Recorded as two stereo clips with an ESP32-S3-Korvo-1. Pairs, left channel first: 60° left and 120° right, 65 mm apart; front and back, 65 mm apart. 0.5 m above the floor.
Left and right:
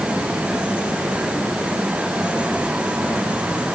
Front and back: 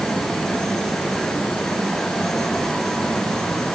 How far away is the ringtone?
No ringtone in this recording.